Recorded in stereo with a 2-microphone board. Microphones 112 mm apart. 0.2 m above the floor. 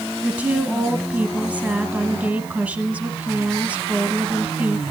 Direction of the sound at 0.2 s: 15° right (ahead or behind).